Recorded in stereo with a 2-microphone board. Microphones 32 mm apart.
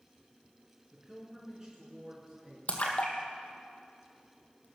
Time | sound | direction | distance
0.9 | a woman speaking | 15° right (ahead or behind) | 3.5 m
2.7 | a splash | 45° left (ahead or behind) | 1.4 m